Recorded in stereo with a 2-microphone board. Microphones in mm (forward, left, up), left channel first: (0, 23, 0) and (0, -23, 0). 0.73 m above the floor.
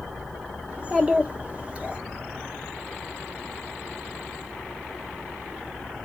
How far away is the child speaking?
About 1.2 m.